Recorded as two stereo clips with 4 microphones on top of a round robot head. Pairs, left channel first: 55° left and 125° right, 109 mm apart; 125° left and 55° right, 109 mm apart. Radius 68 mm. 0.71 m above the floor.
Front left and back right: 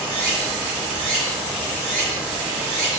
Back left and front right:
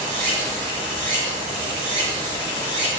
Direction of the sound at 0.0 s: 45° right.